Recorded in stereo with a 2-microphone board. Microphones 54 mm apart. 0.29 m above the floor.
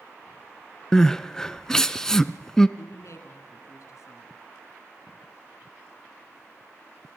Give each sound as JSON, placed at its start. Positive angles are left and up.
{"t": 0.9, "sound": "crying", "side_deg": 15, "distance_m": 0.7}
{"t": 2.8, "sound": "a woman speaking", "side_deg": 65, "distance_m": 3.0}